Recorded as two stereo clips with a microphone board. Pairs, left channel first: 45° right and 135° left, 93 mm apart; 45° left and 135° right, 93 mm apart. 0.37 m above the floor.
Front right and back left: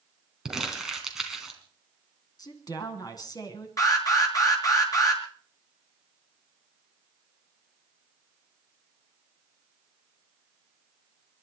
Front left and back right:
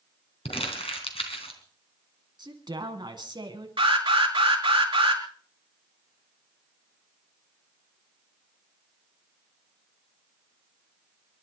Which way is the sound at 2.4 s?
95° right.